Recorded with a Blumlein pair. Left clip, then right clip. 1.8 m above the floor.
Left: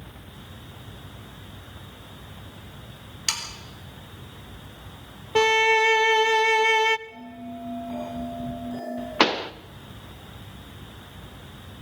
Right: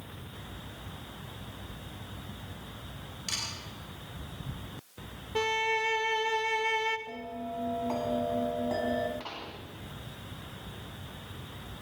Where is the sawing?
30° left, 4 m.